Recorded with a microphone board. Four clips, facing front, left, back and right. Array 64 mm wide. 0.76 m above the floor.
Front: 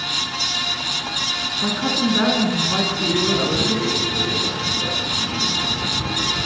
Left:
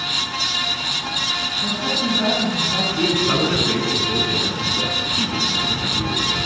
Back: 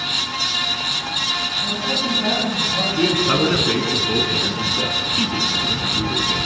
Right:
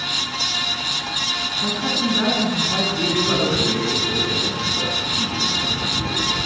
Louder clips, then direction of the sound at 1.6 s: Right 1 dB, front 6 dB; 20° right.